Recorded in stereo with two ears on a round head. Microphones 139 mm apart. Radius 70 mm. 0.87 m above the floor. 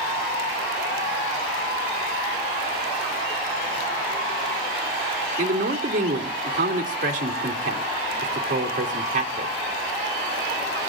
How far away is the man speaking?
About 2.5 m.